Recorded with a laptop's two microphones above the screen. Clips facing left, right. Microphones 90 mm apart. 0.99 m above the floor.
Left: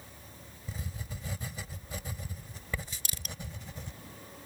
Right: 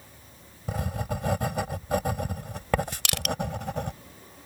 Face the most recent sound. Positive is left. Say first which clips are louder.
# right 15 dB
turn(degrees=-75)  # may be behind; listen again after turning